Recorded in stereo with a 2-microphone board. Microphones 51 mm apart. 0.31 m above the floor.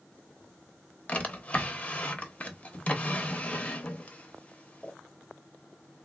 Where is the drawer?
25° left (ahead or behind), 0.6 m.